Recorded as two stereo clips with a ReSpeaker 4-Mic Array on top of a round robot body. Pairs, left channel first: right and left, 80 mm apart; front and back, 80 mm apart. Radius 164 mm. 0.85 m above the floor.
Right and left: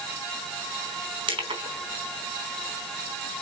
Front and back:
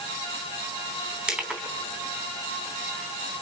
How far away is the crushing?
About 4 m.